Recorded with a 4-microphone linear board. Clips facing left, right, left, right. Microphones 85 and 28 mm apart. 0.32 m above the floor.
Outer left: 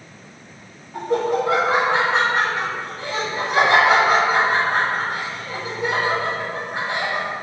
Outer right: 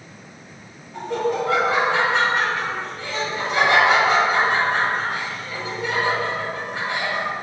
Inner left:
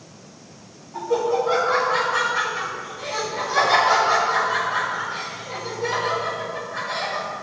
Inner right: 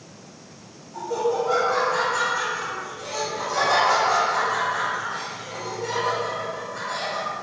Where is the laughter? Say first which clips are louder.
Outer left 3 dB, inner left 3 dB; 20° left (ahead or behind), 1.9 m.